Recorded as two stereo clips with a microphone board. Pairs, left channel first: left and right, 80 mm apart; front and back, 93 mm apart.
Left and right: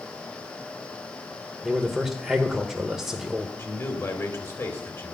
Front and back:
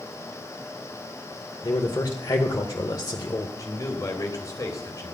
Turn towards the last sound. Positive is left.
turn(degrees=45)